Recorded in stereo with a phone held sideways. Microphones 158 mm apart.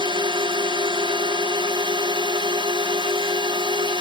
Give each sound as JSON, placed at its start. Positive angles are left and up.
{"t": 0.0, "sound": "a drone", "side_deg": -30}